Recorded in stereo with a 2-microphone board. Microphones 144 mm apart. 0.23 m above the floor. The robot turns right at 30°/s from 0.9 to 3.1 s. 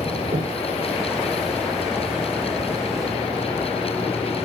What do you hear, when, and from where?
0.3 s breathing: 65° right (ahead or behind), 8.5 m